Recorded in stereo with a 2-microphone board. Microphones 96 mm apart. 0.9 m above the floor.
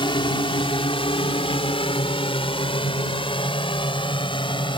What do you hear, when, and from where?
0.0 s a drone: 60° left (ahead or behind)